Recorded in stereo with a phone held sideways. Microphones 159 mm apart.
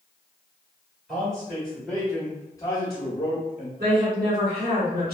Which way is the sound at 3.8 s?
75° right (ahead or behind).